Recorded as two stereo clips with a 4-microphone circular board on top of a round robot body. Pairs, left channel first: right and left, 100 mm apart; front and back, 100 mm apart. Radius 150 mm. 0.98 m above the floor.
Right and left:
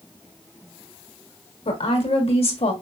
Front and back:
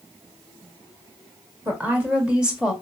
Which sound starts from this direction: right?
A woman speaking, at 1.6 s.